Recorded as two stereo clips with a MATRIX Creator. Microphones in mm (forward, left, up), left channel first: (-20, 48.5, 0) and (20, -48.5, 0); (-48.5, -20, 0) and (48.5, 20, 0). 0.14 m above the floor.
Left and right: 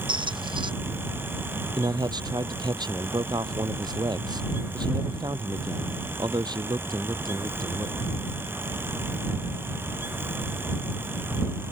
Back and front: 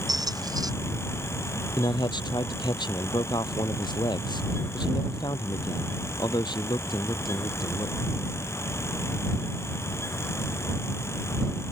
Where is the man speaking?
115° right.